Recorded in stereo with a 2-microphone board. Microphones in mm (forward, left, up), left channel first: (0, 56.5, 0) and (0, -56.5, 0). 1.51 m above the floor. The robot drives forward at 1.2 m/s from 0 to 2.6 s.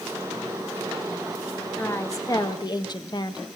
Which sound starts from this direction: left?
A woman speaking, at 1.8 s.